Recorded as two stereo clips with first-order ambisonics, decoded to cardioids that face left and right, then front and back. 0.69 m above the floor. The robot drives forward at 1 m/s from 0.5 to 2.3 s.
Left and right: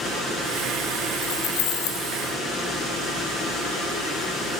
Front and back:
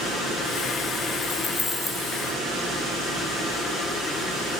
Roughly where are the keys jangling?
Left.